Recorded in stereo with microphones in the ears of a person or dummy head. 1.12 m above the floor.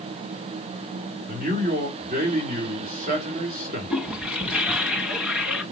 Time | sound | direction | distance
1.3 | a man speaking | 40° right (ahead or behind) | 2.5 m
3.9 | a toilet flushing | 5° right (ahead or behind) | 1.6 m